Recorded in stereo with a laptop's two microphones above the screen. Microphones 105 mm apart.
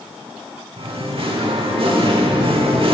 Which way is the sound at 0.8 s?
60° right (ahead or behind).